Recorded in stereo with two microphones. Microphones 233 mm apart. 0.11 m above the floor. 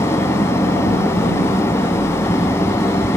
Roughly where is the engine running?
Centre.